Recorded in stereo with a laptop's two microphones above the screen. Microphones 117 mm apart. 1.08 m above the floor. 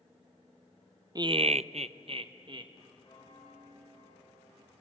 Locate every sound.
1.1 s laughter: 35° right (ahead or behind), 0.5 m; by 2.7 s 40° right (ahead or behind), 1.2 m
3.0 s a bell: 35° left (ahead or behind), 4 m